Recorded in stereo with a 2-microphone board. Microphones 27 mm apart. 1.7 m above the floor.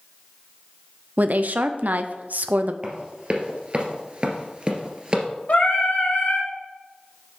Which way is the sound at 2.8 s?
35° right (ahead or behind).